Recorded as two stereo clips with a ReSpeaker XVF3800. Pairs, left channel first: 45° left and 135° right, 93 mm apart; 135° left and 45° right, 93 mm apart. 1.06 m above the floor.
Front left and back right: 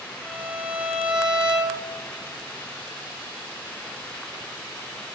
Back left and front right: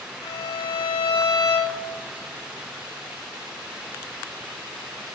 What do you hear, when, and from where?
0.2 s a violin: 145° left, 5 m